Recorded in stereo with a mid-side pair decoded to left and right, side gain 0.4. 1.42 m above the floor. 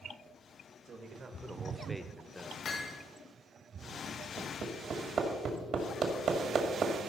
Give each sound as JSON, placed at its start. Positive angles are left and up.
{"t": 0.8, "sound": "a man speaking", "azimuth_deg": -60, "distance_m": 1.7}
{"t": 2.6, "sound": "hammering", "azimuth_deg": 60, "distance_m": 1.9}
{"t": 4.4, "sound": "hammering", "azimuth_deg": -65, "distance_m": 2.0}